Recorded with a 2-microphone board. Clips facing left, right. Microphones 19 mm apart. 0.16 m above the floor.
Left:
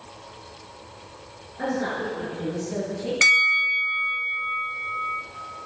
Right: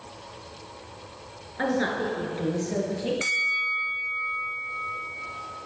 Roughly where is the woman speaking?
Right.